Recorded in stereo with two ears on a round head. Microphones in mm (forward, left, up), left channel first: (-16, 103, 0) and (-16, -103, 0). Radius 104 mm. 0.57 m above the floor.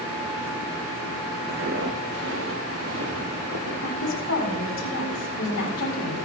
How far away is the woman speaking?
About 5.5 m.